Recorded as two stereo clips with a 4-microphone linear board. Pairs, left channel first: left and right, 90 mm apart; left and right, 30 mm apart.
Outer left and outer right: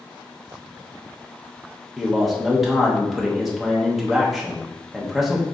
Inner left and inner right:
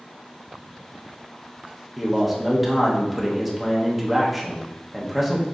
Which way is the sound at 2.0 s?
Centre (ahead or behind).